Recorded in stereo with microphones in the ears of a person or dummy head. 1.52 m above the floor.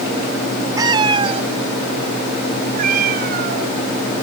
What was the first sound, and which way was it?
A cat meowing, 25° right (ahead or behind).